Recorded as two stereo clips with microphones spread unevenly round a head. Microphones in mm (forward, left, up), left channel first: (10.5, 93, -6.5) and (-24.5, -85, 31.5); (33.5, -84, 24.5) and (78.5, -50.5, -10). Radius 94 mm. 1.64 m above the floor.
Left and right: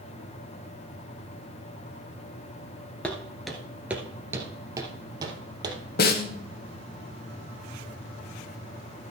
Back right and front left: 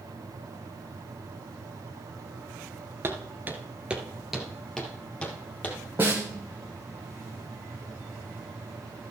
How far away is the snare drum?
About 1.3 m.